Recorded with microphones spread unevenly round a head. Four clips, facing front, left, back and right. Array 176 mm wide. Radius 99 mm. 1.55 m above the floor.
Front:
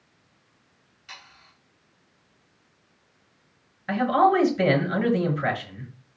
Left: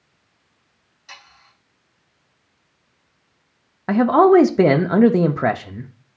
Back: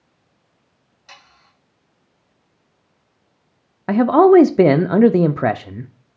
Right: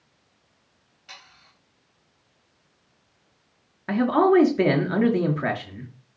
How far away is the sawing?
About 3 m.